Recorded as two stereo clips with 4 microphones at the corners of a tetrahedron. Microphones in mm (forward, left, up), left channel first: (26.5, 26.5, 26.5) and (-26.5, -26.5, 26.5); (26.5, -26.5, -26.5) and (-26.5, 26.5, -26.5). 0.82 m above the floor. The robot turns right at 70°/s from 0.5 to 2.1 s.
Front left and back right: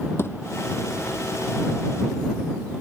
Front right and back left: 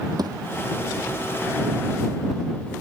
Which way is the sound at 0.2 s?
100° left.